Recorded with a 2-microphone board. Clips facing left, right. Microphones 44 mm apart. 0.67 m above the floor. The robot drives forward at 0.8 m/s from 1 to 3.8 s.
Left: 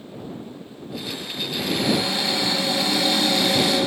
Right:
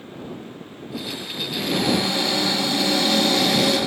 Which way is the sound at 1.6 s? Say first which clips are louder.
Right 1 dB; 15° left (ahead or behind).